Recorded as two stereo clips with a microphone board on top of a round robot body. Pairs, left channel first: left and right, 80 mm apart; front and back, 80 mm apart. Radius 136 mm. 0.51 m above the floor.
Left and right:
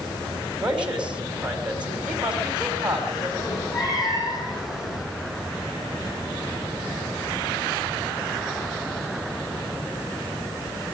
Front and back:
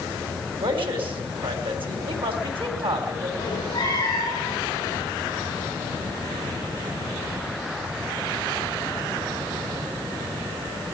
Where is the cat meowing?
45° left, 9 m.